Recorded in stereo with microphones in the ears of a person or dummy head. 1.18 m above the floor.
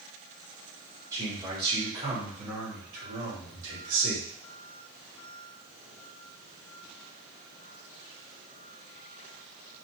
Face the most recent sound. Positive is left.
turn(degrees=-85)